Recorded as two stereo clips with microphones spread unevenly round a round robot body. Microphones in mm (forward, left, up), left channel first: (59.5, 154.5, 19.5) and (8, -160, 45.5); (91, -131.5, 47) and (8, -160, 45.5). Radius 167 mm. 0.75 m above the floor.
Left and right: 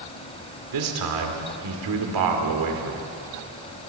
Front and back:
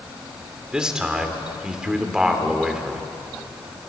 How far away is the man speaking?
About 3 m.